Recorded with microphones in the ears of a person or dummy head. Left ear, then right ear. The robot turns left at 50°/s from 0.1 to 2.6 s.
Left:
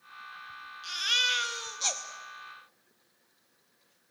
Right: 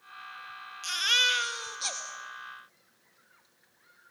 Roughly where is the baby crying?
Behind right.